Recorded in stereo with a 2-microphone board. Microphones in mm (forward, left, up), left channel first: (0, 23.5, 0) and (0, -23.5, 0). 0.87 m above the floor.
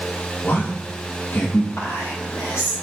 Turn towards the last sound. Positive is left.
turn(degrees=70)  # may be behind; listen again after turning